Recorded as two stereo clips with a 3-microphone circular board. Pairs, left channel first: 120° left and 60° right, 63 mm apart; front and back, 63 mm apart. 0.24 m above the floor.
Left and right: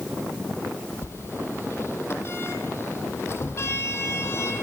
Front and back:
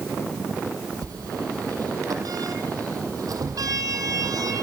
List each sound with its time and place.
1.0 s a sliding door: 165° left, 3.5 m